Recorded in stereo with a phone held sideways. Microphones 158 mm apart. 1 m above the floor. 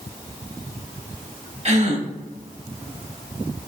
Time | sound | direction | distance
1.6 | a gasp | 45° right (ahead or behind) | 0.7 m